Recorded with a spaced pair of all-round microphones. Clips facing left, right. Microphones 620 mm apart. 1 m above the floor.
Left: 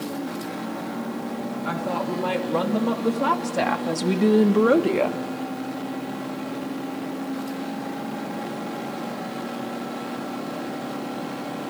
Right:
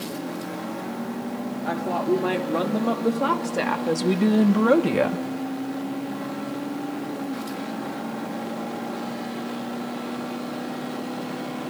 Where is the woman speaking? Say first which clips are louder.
Right 6 dB; 30° left (ahead or behind), 2.5 m; by 5.2 s 55° right (ahead or behind), 0.7 m.